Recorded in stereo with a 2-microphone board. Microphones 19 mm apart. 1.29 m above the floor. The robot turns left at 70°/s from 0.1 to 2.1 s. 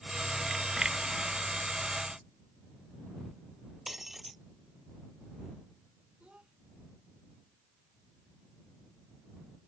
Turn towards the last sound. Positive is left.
turn(degrees=-85)